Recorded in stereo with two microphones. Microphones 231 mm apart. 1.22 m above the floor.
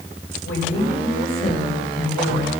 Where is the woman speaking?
65° left (ahead or behind), 6.5 m; by 2.5 s 80° left, 5 m.